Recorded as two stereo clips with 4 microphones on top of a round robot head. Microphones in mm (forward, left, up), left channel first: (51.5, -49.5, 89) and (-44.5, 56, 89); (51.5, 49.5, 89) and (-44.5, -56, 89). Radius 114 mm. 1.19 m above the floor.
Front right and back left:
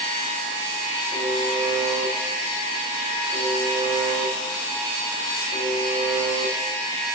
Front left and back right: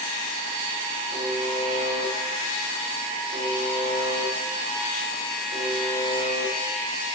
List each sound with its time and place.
1.1 s a buzzer: 5° left, 8.5 m